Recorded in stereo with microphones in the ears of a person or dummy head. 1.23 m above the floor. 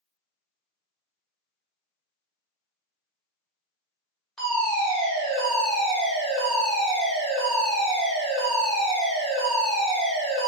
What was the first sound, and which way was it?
A fire alarm, centre (ahead or behind).